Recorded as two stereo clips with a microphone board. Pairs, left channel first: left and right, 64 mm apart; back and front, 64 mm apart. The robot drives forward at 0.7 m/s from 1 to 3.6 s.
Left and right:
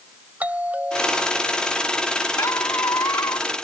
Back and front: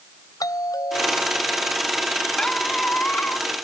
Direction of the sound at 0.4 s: 155° right.